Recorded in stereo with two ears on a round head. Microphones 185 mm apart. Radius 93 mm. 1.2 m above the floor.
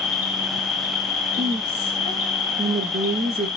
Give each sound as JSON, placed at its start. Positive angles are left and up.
{"t": 0.0, "sound": "an insect", "side_deg": 35, "distance_m": 1.1}
{"t": 1.4, "sound": "a woman speaking", "side_deg": -50, "distance_m": 0.6}